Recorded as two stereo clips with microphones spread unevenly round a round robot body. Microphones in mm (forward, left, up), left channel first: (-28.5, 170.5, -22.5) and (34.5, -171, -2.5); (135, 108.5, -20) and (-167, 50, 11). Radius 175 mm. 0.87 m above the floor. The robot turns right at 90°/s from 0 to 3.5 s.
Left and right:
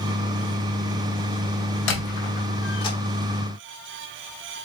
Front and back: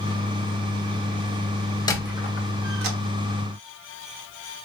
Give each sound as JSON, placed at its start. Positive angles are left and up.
{"t": 1.9, "sound": "a squeak", "azimuth_deg": 90, "distance_m": 1.2}